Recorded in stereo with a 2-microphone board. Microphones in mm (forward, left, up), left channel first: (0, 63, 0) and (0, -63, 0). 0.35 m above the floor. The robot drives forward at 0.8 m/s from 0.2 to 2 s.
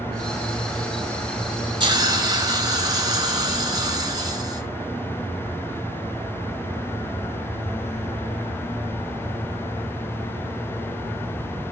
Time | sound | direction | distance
1.8 | a hiss | 40° right (ahead or behind) | 0.7 m